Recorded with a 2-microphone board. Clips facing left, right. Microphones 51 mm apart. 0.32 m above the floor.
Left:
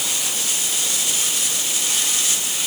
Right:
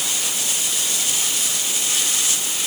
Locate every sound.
Only background noise.